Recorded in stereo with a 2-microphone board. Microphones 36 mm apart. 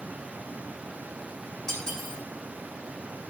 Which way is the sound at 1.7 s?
10° left (ahead or behind).